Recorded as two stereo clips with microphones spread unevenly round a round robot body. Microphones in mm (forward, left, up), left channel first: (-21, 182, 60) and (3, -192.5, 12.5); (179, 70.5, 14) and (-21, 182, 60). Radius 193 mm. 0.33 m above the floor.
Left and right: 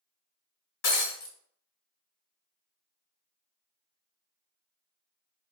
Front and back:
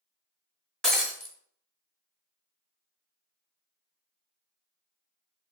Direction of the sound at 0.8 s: 50° left.